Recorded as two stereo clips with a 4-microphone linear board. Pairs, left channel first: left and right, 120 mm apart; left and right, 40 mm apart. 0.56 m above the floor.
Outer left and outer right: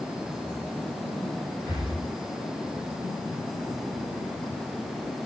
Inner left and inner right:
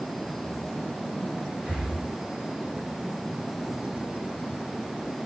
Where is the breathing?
25° right (ahead or behind), 1.1 m.